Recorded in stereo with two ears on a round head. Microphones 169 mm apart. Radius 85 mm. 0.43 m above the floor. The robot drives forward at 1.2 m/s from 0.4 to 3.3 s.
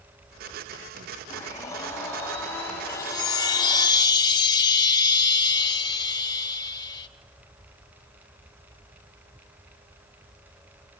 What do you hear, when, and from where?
1.3 s a blender: 20° left (ahead or behind), 3.5 m; by 3.9 s 10° left (ahead or behind), 6 m
2.9 s a chime: 15° left (ahead or behind), 1.2 m; by 7.1 s 20° left (ahead or behind), 0.9 m